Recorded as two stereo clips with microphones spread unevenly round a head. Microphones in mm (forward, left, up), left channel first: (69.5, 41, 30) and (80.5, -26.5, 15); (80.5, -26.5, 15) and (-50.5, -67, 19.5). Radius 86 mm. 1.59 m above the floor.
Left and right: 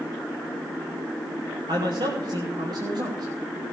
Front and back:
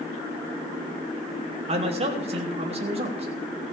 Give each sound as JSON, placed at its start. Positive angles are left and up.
{"t": 1.7, "sound": "a man speaking", "azimuth_deg": -120, "distance_m": 3.5}